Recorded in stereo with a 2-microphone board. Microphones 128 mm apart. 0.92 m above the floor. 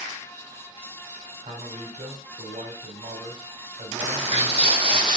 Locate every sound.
1.4 s a man speaking: 70° right (ahead or behind), 3.5 m
4.0 s footsteps: 55° right (ahead or behind), 2.5 m; by 5.2 s 40° right (ahead or behind), 2 m